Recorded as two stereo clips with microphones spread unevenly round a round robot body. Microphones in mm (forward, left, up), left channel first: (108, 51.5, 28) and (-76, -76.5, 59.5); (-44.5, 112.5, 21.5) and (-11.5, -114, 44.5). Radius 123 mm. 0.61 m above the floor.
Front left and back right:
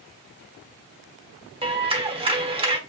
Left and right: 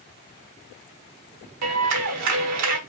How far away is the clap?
About 1.3 m.